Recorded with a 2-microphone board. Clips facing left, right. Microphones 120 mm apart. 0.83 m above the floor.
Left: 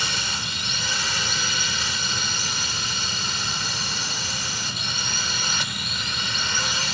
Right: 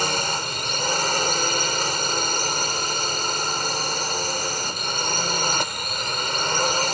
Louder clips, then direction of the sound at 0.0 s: Right 6 dB; 40° right (ahead or behind).